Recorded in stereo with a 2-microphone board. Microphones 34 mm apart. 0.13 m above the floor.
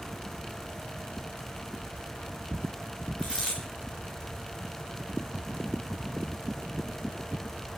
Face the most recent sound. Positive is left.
turn(degrees=20)  # may be behind; listen again after turning